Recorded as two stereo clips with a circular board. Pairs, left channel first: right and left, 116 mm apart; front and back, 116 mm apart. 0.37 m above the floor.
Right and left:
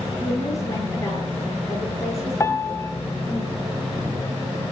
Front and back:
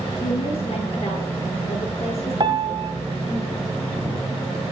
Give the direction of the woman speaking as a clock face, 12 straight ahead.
1 o'clock.